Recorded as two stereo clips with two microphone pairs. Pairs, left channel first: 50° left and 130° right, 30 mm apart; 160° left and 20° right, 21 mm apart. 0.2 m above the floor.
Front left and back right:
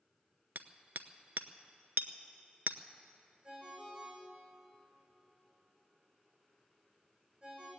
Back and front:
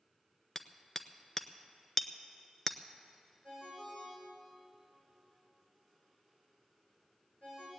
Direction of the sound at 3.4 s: 175° left.